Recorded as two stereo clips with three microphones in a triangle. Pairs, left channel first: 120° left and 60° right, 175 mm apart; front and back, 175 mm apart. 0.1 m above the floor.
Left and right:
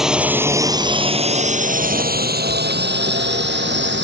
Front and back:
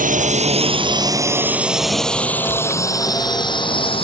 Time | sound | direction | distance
0.0 | a drone | 145° right | ?